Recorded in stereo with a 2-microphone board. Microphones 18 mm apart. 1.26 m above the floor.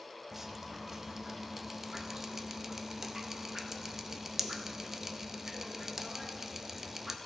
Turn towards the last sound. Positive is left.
turn(degrees=-20)  # may be behind; listen again after turning